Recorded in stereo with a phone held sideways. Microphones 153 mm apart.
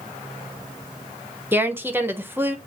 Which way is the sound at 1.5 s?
15° right (ahead or behind).